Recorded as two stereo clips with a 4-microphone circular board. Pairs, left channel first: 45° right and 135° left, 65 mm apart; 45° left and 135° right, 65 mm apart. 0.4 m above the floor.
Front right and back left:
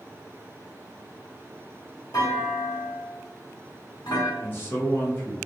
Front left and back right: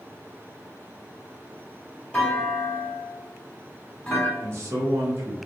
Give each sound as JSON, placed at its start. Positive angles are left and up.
{"t": 2.1, "sound": "a clunk", "azimuth_deg": -30, "distance_m": 1.3}
{"t": 4.4, "sound": "a man speaking", "azimuth_deg": -100, "distance_m": 1.3}